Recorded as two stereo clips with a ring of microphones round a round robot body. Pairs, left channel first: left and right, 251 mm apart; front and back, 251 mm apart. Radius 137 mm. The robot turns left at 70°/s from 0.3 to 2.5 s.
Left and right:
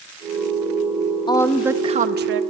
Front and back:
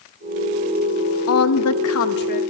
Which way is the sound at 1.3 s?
20° left.